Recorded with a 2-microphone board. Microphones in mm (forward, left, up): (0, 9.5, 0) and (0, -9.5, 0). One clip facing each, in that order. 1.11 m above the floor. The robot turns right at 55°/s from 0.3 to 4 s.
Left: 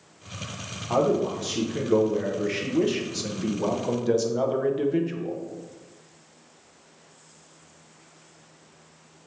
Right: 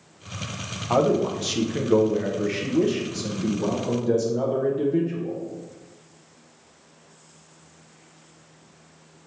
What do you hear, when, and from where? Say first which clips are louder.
0.9 s a man speaking: right 2 dB; 80° right, 0.5 m; by 5.4 s 90° left, 0.5 m